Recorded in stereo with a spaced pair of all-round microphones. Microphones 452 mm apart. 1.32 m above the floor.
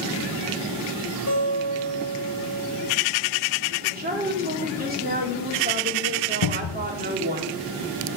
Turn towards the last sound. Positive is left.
turn(degrees=75)  # may be behind; listen again after turning